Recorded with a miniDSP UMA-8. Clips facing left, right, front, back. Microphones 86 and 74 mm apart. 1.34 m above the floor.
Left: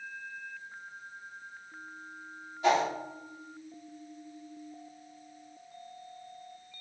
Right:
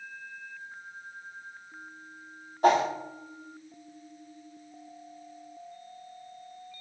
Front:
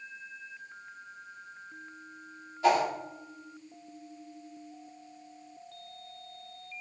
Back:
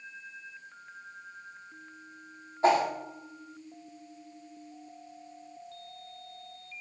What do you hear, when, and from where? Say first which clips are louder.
2.6 s a whoosh: right 4 dB, back 1 dB; 125° right, 1.8 m